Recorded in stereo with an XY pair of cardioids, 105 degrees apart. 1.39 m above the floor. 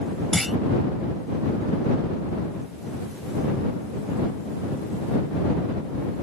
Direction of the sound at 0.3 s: 5° left.